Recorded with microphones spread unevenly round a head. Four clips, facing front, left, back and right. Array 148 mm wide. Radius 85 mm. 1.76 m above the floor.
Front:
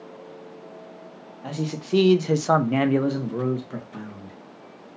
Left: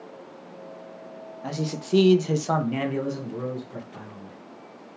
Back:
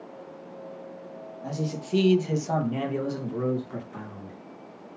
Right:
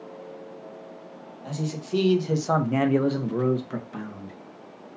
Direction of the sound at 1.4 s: 50° left.